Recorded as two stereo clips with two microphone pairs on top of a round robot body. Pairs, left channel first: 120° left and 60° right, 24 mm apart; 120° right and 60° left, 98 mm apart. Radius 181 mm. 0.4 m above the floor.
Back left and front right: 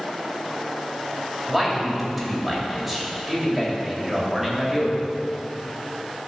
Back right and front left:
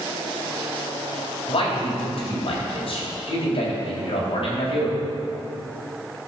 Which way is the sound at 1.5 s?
140° right.